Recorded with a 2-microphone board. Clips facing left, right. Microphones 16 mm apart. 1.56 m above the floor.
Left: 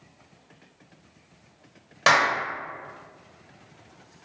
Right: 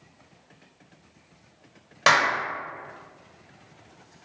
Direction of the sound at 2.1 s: 5° right (ahead or behind).